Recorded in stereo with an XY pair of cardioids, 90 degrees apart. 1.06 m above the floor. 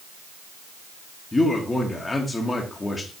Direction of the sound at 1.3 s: 25° left.